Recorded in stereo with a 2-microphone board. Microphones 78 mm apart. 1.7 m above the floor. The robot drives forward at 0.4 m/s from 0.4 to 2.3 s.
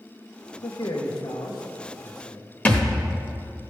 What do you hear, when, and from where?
0.6 s a man speaking: 70° left (ahead or behind), 1.3 m; by 2.5 s 60° left (ahead or behind), 1.4 m
2.6 s a thud: 20° left (ahead or behind), 1.0 m